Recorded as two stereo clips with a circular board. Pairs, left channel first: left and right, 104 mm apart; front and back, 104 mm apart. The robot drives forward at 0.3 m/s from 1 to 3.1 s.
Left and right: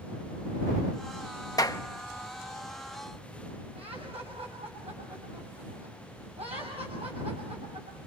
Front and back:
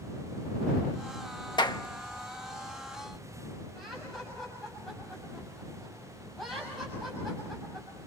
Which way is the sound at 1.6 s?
40° left.